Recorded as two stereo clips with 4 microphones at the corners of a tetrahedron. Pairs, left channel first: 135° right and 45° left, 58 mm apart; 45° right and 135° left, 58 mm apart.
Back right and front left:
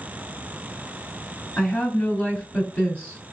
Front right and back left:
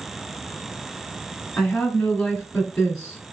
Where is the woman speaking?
110° right, 1.6 m.